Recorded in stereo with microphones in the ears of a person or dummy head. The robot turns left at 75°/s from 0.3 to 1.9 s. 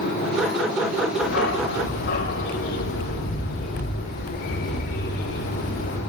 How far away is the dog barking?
About 3.5 m.